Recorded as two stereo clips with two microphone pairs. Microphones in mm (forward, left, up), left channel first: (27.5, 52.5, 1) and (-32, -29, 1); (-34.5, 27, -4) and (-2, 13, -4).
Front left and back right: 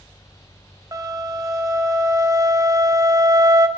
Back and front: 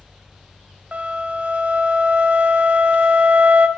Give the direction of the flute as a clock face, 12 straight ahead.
2 o'clock.